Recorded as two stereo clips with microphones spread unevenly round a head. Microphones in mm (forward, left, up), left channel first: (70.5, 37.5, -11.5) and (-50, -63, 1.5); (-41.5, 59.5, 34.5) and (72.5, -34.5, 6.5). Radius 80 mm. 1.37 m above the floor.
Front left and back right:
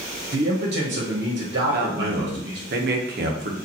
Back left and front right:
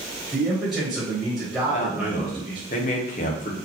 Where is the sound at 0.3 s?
125° right, 1.1 m.